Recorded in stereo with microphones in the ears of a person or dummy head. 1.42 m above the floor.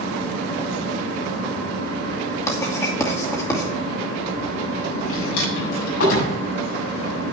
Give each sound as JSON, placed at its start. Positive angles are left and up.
{"t": 0.0, "sound": "a fan", "side_deg": 75, "distance_m": 4.0}
{"t": 2.5, "sound": "writing", "side_deg": 20, "distance_m": 2.5}
{"t": 5.0, "sound": "a drawer", "side_deg": 80, "distance_m": 5.5}